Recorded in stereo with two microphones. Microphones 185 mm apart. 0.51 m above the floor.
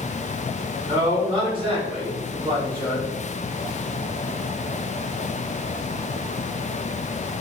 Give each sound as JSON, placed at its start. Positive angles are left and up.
{"t": 0.8, "sound": "a man speaking", "side_deg": -30, "distance_m": 1.3}